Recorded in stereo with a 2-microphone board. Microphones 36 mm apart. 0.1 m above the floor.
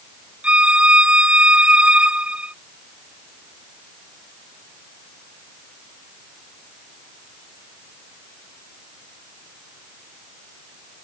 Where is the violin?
30° right (ahead or behind).